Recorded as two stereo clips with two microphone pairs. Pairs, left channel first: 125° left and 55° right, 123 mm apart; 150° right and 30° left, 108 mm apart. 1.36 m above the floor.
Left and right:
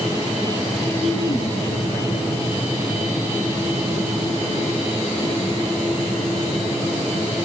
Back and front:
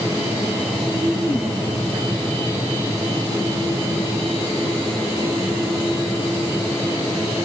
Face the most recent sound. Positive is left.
turn(degrees=95)